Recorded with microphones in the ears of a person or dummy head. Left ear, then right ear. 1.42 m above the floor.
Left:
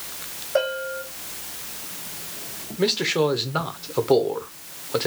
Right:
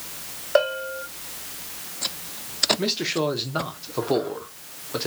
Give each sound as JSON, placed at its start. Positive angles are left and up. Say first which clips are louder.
{"t": 0.6, "sound": "a bell", "louder": "right 2 dB", "side_deg": -50, "distance_m": 1.2}
{"t": 2.8, "sound": "a man speaking", "louder": "left 3 dB", "side_deg": 5, "distance_m": 0.7}